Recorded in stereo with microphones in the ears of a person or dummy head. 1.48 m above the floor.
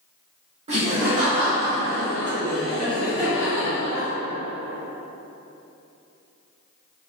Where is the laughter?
40° right (ahead or behind), 1.1 m; by 4.1 s 25° right (ahead or behind), 1.7 m.